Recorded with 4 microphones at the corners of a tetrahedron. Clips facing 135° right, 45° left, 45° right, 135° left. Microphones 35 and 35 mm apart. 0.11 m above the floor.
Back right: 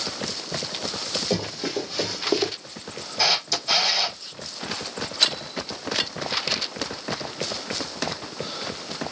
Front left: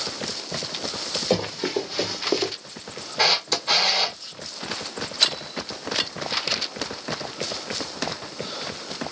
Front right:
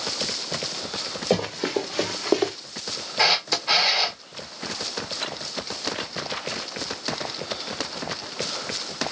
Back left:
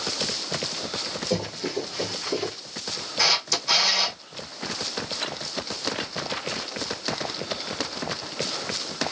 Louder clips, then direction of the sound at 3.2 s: Front left 2 dB, front right 2 dB; 5° left.